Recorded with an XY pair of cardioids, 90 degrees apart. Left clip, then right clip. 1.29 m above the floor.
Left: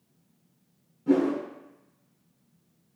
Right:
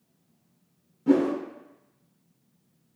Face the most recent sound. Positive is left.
turn(degrees=-50)